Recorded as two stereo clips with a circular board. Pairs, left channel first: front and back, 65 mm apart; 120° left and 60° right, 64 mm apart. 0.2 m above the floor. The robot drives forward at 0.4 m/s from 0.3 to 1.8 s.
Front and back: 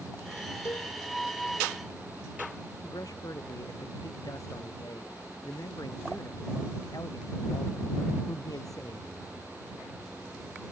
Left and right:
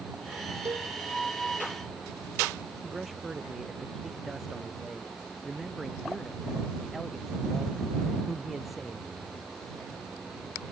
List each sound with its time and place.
0.7 s a cowbell: 40° right
2.8 s a man speaking: 30° left